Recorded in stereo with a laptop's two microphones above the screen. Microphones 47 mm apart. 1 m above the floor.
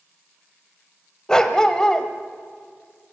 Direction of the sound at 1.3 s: 15° left (ahead or behind).